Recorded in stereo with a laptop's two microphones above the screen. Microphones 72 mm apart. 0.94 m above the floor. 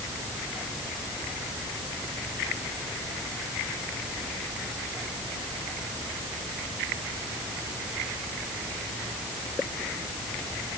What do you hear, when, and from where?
Only background noise.